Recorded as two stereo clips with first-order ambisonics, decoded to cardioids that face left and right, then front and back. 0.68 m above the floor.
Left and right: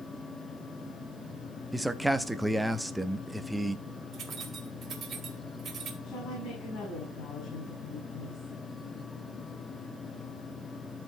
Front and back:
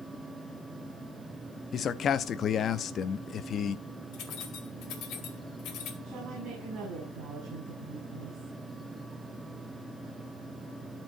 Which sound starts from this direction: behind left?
A woman speaking, at 6.0 s.